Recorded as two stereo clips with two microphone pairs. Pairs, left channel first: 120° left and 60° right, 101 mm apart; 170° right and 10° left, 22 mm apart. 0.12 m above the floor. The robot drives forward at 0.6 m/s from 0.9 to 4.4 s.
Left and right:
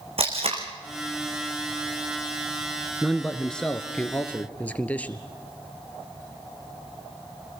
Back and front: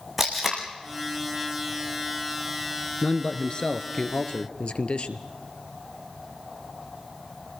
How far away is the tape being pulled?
About 4 m.